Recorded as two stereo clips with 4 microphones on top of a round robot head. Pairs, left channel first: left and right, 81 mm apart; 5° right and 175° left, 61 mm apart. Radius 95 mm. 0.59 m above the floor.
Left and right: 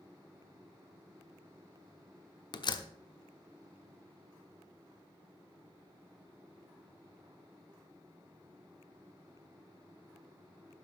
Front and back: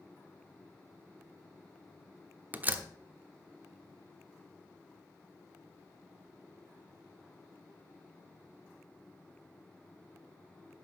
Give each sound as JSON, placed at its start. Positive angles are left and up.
{"t": 2.5, "sound": "a door slam", "azimuth_deg": 115, "distance_m": 1.0}